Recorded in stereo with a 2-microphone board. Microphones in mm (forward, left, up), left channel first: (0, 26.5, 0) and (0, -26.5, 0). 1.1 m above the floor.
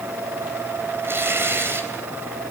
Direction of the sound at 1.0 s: 50° right (ahead or behind).